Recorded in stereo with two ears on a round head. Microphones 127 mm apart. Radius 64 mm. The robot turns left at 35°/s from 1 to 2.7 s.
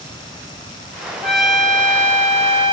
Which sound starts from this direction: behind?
A trumpet, at 1.2 s.